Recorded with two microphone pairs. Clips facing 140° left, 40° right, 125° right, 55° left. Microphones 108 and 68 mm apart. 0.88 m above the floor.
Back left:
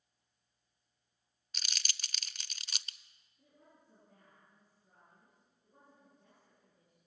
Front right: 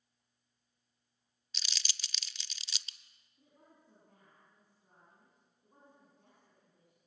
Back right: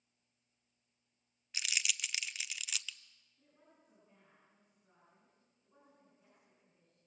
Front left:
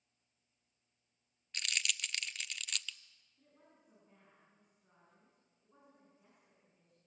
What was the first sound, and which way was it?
Crumpling, 145° left.